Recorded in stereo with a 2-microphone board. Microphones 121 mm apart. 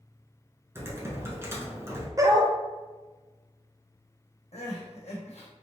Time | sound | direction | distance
0.8 | typing on a keyboard | 20° right (ahead or behind) | 1.2 m
2.2 | a dog barking | 30° right (ahead or behind) | 0.6 m
4.5 | crying | 65° left (ahead or behind) | 1.4 m